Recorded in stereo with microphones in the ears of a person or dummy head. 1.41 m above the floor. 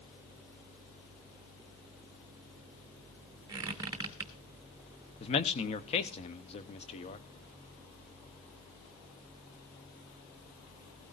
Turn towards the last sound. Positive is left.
turn(degrees=35)  # may be behind; listen again after turning